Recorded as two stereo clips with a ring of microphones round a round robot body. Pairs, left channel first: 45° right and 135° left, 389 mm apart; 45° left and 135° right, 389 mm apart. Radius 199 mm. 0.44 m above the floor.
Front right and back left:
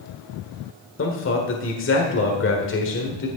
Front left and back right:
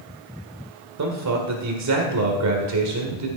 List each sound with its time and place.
1.0 s a man speaking: 100° right, 1.6 m